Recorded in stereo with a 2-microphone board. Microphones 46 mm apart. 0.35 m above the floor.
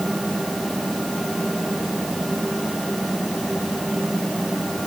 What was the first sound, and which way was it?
Only background noise.